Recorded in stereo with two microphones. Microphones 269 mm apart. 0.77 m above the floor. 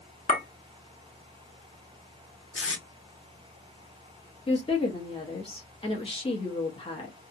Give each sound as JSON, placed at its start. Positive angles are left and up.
{"t": 0.3, "sound": "a clink", "side_deg": 30, "distance_m": 0.9}
{"t": 2.5, "sound": "tape being pulled", "side_deg": 50, "distance_m": 0.6}
{"t": 4.5, "sound": "a woman speaking", "side_deg": 20, "distance_m": 0.9}